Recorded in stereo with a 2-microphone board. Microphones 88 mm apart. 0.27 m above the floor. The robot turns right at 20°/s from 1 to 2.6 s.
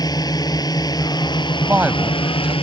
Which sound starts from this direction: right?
A woman speaking, at 1.6 s.